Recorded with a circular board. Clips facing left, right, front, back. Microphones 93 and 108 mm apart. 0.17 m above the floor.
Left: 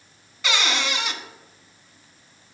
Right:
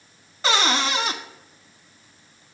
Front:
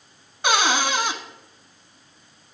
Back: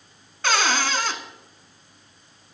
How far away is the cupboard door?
About 0.5 m.